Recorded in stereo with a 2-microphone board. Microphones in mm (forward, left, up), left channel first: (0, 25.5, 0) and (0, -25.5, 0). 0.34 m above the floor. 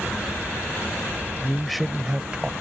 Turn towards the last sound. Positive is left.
turn(degrees=-15)  # may be behind; listen again after turning